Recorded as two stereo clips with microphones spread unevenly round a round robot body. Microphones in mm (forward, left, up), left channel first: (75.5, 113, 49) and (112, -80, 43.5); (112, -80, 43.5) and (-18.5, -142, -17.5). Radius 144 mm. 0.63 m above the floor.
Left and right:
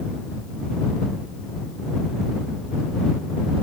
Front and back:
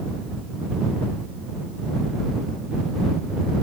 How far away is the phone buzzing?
No phone buzzing in this recording.